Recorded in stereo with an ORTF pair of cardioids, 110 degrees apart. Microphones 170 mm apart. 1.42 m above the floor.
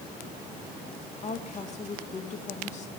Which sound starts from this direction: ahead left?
A woman speaking, at 1.2 s.